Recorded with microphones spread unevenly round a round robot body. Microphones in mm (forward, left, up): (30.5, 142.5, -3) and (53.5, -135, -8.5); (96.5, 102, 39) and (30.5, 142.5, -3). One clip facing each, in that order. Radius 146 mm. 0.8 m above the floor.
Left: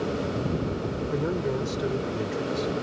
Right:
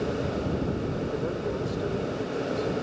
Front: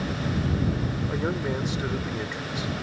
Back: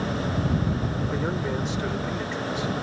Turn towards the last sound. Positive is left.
turn(degrees=55)